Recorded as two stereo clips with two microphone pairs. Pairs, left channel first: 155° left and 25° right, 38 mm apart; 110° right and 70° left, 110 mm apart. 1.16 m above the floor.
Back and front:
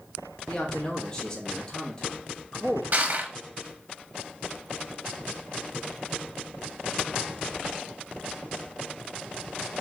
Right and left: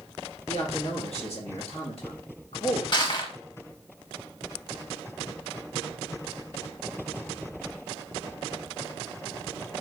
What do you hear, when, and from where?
0.5 s a man speaking: 135° right, 1.2 m
2.9 s crushing: 65° right, 0.9 m